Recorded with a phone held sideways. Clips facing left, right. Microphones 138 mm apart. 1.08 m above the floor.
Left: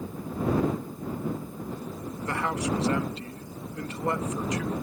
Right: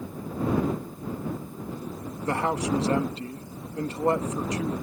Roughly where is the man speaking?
Right.